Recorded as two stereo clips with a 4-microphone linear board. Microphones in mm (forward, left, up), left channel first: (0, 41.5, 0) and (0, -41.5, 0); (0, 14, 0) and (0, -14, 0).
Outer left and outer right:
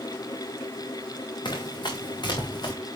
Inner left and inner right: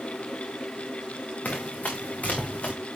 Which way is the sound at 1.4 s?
65° left (ahead or behind).